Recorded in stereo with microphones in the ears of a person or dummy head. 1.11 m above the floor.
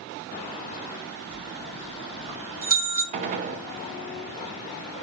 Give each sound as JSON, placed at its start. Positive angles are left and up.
{"t": 1.3, "sound": "a bell", "side_deg": -45, "distance_m": 2.5}
{"t": 3.1, "sound": "a gunshot", "side_deg": -45, "distance_m": 0.5}